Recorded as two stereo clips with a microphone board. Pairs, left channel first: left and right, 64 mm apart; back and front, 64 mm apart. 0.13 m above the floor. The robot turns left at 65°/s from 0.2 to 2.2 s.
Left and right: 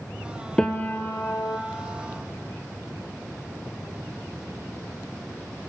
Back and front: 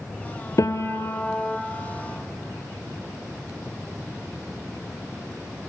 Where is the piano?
165° left, 1.1 m; by 1.6 s 100° left, 1.1 m.